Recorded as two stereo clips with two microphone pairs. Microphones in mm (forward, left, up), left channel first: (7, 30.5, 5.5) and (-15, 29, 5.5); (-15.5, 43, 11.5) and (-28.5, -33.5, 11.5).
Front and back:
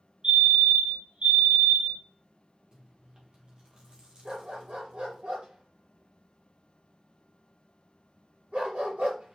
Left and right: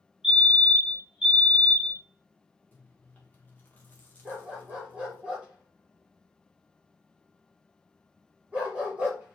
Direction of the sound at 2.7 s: 145° left.